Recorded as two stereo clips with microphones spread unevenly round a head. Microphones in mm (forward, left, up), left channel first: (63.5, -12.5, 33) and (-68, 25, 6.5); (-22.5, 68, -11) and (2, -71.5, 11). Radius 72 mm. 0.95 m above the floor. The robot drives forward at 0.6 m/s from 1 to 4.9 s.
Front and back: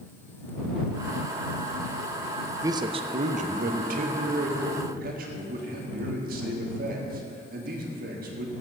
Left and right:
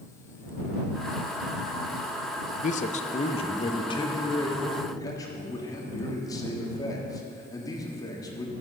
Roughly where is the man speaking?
Left.